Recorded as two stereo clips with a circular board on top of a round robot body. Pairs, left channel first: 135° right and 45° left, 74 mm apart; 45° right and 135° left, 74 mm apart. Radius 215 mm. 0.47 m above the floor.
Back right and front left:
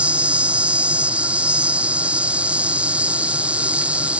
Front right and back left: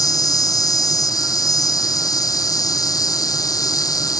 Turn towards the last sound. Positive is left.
turn(degrees=-25)